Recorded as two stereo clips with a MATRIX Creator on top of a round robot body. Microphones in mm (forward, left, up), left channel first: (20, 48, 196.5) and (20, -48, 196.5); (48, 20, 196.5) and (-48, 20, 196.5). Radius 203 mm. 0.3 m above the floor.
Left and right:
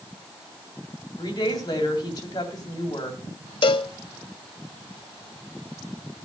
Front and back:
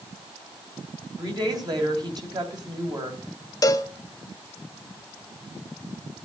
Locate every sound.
1.2 s a woman speaking: 135° left, 3 m
3.6 s a cowbell: 55° left, 0.6 m